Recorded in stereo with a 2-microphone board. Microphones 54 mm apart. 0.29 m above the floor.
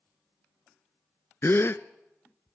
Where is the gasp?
50° left (ahead or behind), 0.6 m.